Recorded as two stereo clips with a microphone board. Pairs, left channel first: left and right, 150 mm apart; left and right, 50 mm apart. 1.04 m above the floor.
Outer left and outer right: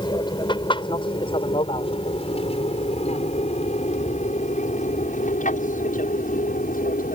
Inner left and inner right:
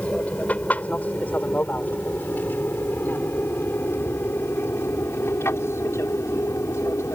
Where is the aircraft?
30° left (ahead or behind); by 7.2 s 65° left (ahead or behind).